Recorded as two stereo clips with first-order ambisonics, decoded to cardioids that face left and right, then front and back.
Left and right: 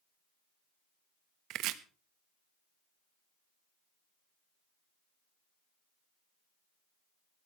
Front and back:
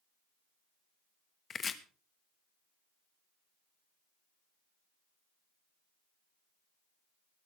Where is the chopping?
65° right, 1.1 m.